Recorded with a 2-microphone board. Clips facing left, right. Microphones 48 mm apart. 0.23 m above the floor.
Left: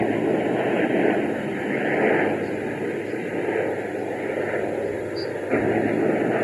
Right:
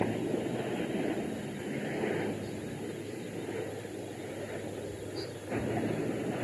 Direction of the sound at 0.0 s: 65° left (ahead or behind).